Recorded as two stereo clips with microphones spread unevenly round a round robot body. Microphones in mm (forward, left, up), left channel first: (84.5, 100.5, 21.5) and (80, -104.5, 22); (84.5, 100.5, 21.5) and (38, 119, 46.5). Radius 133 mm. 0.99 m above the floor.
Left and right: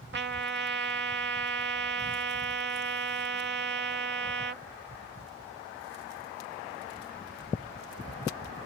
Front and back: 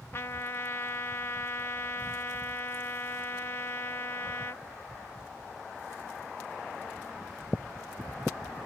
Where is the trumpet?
60° right.